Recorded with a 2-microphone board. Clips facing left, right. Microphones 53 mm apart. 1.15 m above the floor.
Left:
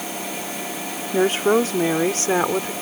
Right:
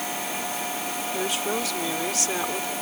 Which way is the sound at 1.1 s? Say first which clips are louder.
Left 12 dB; 40° left (ahead or behind).